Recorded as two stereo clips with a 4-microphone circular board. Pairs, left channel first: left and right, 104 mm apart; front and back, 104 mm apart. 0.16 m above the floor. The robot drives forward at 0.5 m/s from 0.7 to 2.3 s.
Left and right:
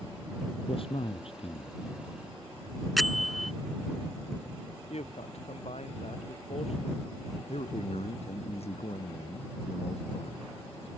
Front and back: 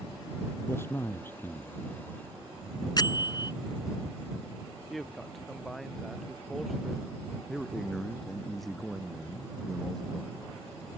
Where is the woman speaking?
90° left.